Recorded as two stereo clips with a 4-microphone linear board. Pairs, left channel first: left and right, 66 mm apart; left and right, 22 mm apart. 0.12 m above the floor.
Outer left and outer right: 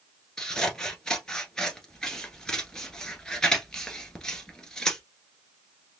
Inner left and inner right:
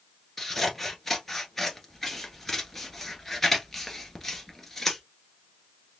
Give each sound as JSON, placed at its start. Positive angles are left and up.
{"t": 0.4, "sound": "scissors", "side_deg": 10, "distance_m": 1.3}